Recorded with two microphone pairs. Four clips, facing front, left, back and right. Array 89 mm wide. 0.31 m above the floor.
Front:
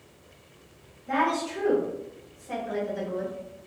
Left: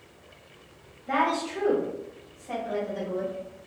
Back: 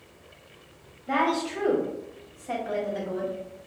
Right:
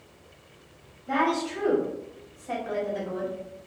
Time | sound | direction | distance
1.1 | a woman speaking | 135° left | 1.3 m